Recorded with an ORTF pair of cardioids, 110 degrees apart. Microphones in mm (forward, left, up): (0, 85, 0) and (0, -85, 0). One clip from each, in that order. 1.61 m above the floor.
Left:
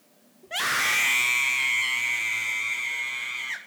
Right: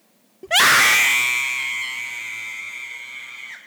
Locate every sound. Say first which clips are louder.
0.4 s a scream: right 11 dB; 70° right, 0.6 m; by 3.6 s 30° left, 1.9 m